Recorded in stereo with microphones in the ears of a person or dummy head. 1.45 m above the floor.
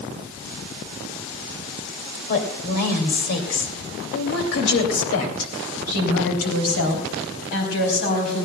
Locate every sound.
2.3 s a woman speaking: 45° left (ahead or behind), 2.5 m; by 8.5 s 70° left (ahead or behind), 4 m